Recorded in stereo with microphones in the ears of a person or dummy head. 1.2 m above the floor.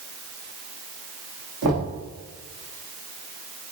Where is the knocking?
75° right (ahead or behind), 1.6 m.